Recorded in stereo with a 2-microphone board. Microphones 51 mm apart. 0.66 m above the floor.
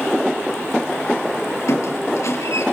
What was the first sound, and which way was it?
A squeak, 80° left.